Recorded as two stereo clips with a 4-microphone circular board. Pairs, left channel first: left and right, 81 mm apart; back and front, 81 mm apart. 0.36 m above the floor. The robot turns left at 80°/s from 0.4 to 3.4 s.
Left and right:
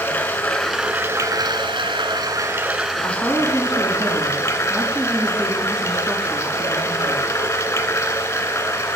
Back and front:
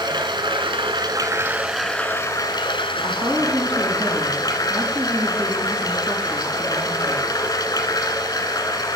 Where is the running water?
20° left, 1.5 m; by 9.0 s 140° left, 1.5 m.